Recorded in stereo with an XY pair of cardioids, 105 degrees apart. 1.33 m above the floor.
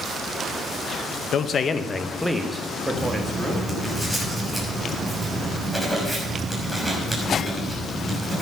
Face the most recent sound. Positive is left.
turn(degrees=5)